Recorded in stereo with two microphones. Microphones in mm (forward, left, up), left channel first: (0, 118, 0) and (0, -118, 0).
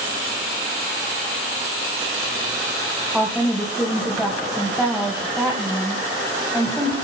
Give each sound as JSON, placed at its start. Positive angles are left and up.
{"t": 3.1, "sound": "a woman speaking", "side_deg": 0, "distance_m": 2.5}